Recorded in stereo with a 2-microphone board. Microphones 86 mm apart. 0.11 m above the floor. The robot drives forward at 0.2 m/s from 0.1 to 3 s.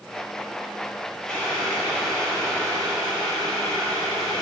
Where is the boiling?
10° left (ahead or behind), 2.5 m.